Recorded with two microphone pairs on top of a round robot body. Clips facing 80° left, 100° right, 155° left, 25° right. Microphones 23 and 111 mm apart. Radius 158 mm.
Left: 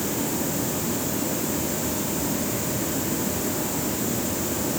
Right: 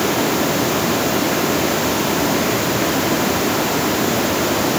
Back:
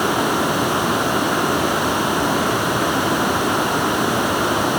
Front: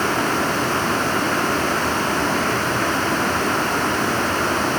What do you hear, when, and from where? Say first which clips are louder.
0.0 s running water: right 10 dB, back 2 dB; 130° right, 0.8 m